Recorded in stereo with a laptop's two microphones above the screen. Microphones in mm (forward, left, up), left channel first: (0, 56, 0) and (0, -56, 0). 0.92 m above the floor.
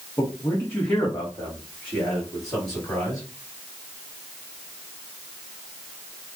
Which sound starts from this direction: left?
A man speaking, at 0.2 s.